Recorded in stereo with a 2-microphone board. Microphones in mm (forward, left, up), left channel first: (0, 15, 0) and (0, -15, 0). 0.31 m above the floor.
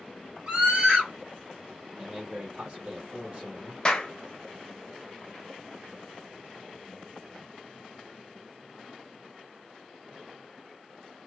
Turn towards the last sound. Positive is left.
turn(degrees=30)  # may be behind; listen again after turning